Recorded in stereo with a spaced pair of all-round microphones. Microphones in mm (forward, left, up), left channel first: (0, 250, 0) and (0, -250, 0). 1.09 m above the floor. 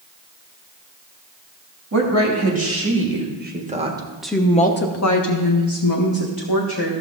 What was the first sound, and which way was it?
A woman speaking, 30° right (ahead or behind).